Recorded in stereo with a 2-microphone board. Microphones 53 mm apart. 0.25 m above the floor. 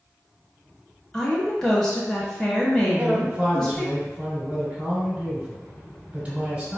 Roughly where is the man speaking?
Right.